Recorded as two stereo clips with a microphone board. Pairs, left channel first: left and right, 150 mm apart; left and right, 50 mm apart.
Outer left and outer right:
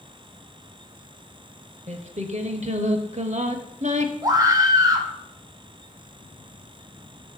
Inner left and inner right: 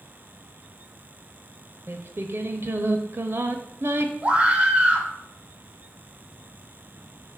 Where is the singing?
55° right (ahead or behind), 0.8 m.